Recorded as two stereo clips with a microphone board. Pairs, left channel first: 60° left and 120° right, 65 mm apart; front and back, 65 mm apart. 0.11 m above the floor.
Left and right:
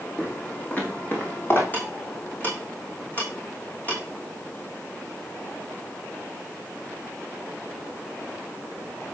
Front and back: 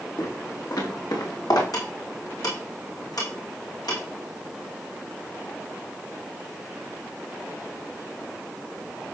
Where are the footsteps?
10° right, 6 m; by 1.6 s 5° left, 5.5 m.